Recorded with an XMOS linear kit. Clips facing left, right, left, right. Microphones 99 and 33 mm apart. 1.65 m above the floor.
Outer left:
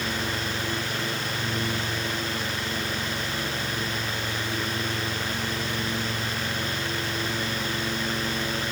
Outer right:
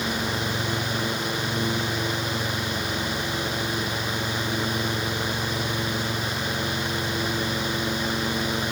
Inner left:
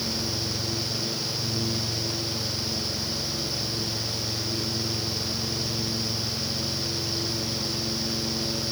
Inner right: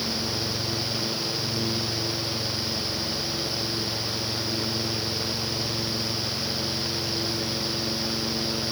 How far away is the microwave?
I don't hear a microwave.